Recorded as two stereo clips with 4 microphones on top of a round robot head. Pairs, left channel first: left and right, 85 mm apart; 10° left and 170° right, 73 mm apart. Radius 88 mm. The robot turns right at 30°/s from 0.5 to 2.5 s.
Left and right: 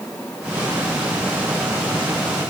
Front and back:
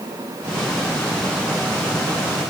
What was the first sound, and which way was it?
Only background noise.